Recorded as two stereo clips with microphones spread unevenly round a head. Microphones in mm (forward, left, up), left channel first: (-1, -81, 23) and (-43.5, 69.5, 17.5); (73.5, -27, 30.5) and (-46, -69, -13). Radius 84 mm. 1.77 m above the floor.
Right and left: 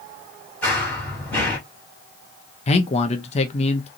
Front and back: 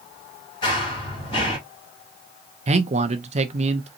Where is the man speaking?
120° right, 0.9 m.